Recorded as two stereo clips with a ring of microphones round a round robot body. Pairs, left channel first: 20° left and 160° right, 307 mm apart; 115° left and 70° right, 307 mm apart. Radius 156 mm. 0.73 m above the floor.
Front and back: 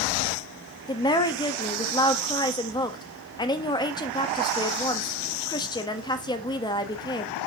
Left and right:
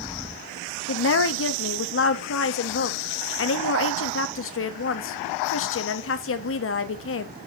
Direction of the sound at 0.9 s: 95° left.